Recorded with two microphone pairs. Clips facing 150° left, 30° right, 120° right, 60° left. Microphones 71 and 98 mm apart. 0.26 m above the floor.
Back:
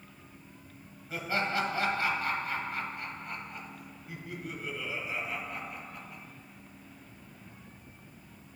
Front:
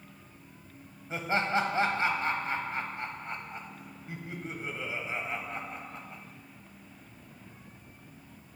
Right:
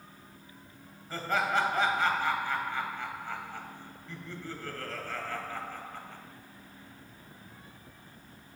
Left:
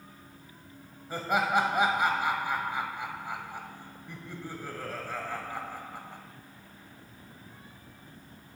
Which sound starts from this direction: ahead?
Laughter, at 1.1 s.